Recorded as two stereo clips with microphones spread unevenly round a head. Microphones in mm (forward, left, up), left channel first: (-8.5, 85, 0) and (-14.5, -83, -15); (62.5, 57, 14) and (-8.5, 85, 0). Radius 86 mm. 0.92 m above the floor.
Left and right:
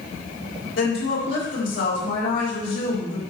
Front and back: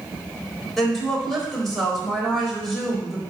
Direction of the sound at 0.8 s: 65° left.